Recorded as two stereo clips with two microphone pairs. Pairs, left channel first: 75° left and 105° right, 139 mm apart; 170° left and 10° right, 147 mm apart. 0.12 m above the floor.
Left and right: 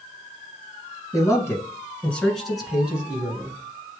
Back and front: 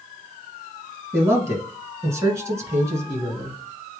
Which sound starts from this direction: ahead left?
A man speaking, at 1.1 s.